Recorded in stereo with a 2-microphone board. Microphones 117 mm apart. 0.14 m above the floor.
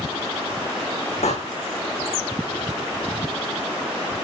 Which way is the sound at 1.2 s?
80° left.